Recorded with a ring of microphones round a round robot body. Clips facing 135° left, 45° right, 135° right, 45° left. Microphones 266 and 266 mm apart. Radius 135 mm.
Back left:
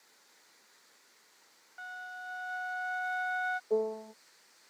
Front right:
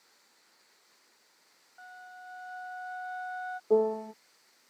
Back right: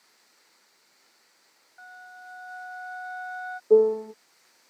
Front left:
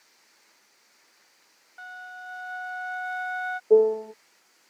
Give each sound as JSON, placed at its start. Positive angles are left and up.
{"t": 1.8, "sound": "a flute", "azimuth_deg": 85}
{"t": 3.7, "sound": "a piano", "azimuth_deg": -55}